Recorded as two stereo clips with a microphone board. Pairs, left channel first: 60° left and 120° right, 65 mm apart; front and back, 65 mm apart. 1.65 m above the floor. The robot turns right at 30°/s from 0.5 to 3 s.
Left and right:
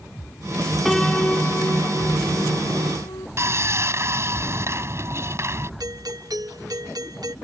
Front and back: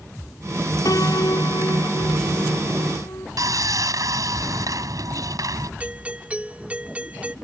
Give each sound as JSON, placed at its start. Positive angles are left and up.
{"t": 0.8, "sound": "a piano", "azimuth_deg": -25}
{"t": 3.4, "sound": "sawing", "azimuth_deg": -165}
{"t": 5.8, "sound": "a doorbell", "azimuth_deg": -110}